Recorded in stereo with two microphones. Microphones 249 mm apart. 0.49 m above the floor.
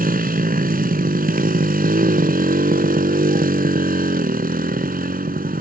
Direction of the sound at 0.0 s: 35° right (ahead or behind).